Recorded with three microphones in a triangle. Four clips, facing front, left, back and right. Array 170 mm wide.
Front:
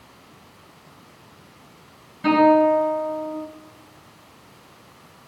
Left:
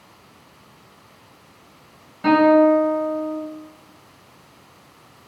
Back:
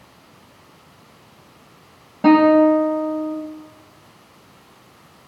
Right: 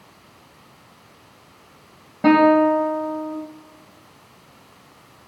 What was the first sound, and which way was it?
A guitar, 145° right.